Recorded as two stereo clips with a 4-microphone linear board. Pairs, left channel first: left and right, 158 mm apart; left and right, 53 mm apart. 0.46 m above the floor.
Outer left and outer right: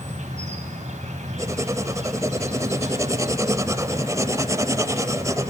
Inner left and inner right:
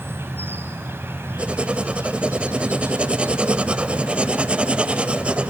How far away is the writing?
About 0.5 m.